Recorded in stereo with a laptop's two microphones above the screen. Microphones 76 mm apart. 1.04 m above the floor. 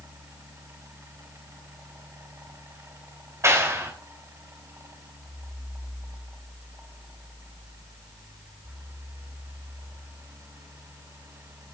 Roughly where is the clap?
Right.